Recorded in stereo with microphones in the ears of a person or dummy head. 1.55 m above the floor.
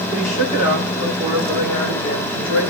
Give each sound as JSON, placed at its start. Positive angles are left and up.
{"t": 0.1, "sound": "a woman speaking", "side_deg": -40, "distance_m": 8.0}